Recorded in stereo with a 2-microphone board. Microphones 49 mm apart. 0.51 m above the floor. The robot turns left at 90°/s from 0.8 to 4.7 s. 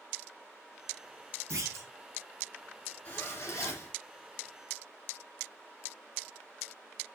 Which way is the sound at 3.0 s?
150° left.